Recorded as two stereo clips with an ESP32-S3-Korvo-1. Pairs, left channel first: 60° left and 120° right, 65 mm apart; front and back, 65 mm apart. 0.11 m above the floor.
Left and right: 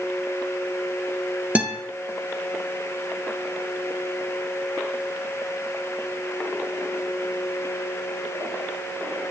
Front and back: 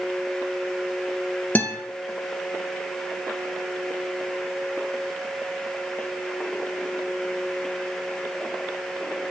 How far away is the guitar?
About 2.5 m.